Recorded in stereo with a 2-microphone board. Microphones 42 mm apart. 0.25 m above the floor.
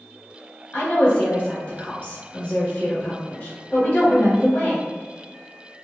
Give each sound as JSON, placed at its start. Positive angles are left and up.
{"t": 0.7, "sound": "a woman speaking", "side_deg": 30, "distance_m": 1.0}